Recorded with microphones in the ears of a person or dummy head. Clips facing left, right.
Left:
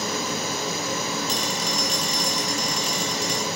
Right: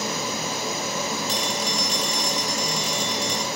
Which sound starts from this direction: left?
A phone ringing, at 1.3 s.